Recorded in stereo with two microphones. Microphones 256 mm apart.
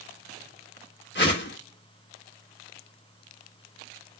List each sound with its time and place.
1.1 s a whoosh: 45° left (ahead or behind), 2 m